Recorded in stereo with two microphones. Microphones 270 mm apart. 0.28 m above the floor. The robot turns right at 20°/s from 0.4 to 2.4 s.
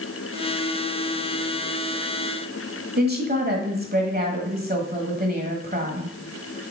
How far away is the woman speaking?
About 1.4 m.